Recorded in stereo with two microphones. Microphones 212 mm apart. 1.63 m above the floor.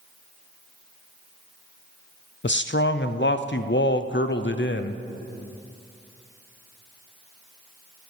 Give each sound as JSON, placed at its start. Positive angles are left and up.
{"t": 2.4, "sound": "a man speaking", "side_deg": 60, "distance_m": 0.6}